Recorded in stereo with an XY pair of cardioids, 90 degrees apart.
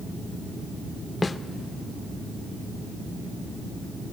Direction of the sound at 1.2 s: 30° left.